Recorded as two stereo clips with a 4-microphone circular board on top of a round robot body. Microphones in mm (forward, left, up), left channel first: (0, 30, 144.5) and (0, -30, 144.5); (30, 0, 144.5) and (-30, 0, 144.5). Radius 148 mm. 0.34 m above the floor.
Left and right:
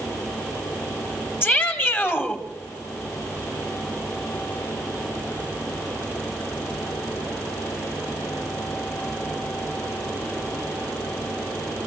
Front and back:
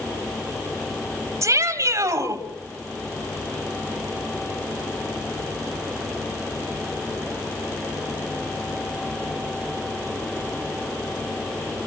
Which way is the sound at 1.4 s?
150° left.